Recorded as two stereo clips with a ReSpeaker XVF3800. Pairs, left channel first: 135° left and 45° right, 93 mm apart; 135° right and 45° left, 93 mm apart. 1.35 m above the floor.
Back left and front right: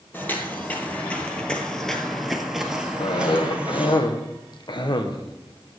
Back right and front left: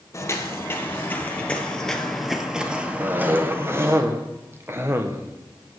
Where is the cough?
105° left, 1.1 m.